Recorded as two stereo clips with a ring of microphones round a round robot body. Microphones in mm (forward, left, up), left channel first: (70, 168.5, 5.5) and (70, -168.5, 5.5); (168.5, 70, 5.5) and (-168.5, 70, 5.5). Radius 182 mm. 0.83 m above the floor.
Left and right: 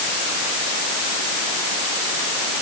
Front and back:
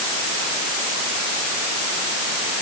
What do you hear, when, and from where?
Only background noise.